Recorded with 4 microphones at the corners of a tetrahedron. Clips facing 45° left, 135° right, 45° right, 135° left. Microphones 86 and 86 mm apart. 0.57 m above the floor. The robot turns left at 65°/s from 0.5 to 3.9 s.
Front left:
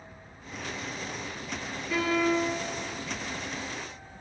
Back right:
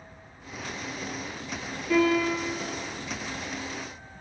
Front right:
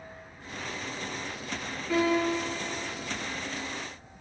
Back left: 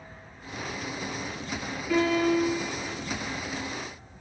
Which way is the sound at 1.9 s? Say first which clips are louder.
Back right 3 dB, back left 2 dB; 120° right.